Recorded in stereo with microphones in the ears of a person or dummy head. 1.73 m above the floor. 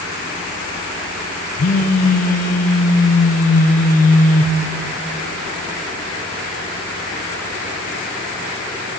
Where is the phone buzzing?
45° left (ahead or behind), 0.7 m.